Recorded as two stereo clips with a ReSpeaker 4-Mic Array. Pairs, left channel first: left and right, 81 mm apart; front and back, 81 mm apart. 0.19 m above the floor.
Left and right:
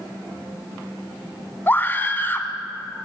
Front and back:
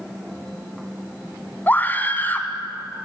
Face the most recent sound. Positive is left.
turn(degrees=45)